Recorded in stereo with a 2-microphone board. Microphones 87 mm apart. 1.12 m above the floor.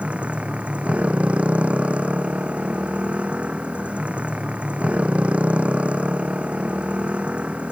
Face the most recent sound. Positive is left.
turn(degrees=-15)  # may be behind; listen again after turning